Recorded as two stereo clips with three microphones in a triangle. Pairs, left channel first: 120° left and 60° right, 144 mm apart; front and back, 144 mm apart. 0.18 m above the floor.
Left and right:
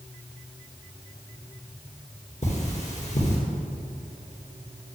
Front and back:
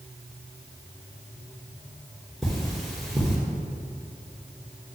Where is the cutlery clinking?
90° left, 2 m.